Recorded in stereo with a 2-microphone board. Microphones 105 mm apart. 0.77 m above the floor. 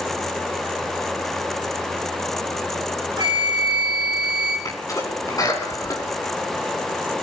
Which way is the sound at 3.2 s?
45° right (ahead or behind).